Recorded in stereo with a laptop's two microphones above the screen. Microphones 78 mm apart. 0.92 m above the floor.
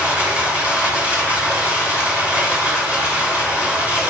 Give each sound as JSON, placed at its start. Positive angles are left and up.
{"t": 0.0, "sound": "running water", "side_deg": -15, "distance_m": 5.5}